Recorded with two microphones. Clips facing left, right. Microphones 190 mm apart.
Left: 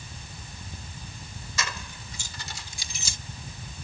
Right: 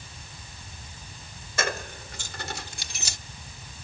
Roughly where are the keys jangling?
Right.